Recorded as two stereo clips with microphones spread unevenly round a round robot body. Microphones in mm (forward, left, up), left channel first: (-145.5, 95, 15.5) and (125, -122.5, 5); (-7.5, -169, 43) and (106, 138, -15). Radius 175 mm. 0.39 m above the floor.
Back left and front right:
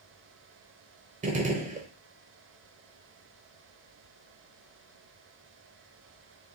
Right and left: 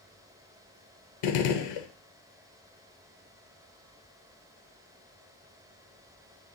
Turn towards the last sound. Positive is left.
turn(degrees=-105)